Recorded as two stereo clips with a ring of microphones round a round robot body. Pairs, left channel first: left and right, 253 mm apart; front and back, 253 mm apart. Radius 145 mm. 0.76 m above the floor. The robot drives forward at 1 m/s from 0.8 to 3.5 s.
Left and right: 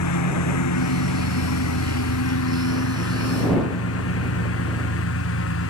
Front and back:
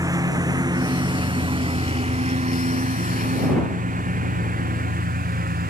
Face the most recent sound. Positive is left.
turn(degrees=125)